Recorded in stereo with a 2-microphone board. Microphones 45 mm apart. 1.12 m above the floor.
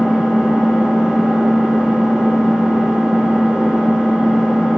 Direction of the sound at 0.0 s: 10° right (ahead or behind).